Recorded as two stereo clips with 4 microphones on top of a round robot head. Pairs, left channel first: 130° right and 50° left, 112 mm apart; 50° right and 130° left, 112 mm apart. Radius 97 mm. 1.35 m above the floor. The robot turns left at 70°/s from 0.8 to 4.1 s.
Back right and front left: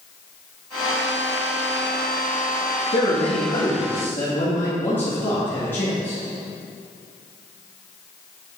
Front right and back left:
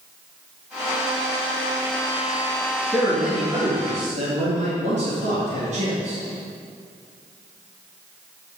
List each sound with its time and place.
2.9 s a man speaking: 125° right, 2.5 m; by 6.2 s 155° left, 2.5 m